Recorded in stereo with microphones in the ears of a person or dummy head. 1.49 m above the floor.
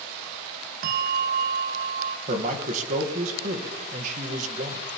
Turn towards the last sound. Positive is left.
turn(degrees=-40)  # may be behind; listen again after turning